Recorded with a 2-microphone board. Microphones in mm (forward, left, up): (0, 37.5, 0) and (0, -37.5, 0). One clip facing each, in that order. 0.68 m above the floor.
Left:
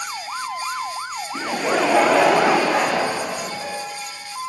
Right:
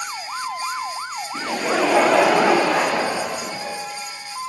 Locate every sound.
1.4 s laughter: 10° left (ahead or behind), 0.5 m; by 3.8 s 5° right (ahead or behind), 2.5 m